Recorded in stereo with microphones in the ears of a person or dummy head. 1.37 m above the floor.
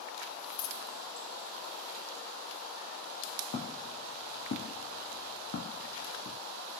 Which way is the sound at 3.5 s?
35° left (ahead or behind).